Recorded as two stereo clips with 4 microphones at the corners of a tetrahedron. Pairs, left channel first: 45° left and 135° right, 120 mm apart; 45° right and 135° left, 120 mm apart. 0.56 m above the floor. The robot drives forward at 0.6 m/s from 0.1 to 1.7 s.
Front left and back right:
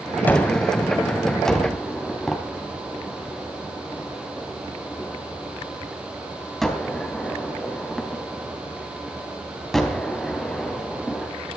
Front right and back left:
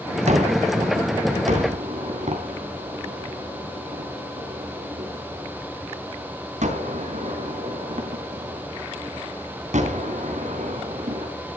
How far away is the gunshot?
About 3 m.